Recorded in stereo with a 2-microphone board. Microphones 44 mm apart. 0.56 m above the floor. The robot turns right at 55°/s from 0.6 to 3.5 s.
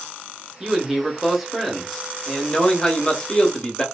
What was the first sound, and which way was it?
A man speaking, 15° right (ahead or behind).